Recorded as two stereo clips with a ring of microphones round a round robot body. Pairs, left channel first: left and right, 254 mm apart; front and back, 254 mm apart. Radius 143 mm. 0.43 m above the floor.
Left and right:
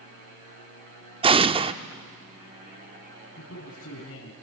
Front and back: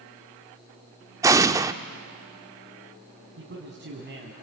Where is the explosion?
120° right, 0.7 m.